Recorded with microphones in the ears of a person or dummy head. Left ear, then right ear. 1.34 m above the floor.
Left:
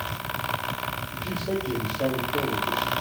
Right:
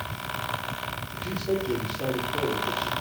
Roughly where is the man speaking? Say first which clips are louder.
Right 1 dB; left.